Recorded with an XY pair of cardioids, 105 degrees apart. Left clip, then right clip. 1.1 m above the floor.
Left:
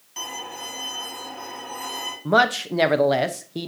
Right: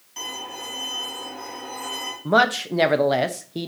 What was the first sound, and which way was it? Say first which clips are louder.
A violin: even; 20° left.